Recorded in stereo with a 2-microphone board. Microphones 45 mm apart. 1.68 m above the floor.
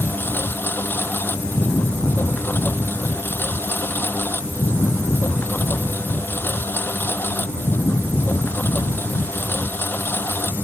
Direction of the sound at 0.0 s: 50° left (ahead or behind).